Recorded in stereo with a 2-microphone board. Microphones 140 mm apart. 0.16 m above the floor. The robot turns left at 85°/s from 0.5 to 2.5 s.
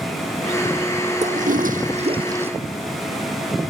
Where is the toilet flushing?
60° right; by 2.5 s 165° right.